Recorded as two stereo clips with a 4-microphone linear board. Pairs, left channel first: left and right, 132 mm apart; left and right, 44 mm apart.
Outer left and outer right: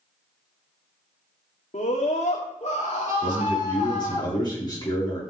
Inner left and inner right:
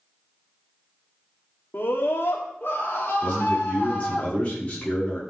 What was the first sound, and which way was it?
A scream, 65° left (ahead or behind).